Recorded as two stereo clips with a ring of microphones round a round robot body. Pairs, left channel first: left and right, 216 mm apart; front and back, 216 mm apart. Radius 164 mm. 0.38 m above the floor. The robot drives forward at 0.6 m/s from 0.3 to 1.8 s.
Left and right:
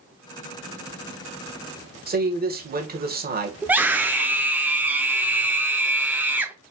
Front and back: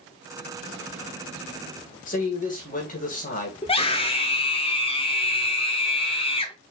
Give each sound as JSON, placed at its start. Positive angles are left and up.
{"t": 2.1, "sound": "a man speaking", "azimuth_deg": -50, "distance_m": 1.8}
{"t": 3.6, "sound": "a scream", "azimuth_deg": -15, "distance_m": 0.9}